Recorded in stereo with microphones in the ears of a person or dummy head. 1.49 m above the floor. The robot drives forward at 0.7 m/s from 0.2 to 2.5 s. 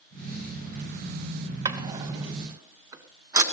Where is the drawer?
20° right (ahead or behind), 2.0 m; by 3.4 s 15° right (ahead or behind), 2.5 m.